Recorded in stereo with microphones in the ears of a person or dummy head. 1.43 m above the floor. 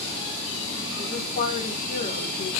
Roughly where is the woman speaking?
Left.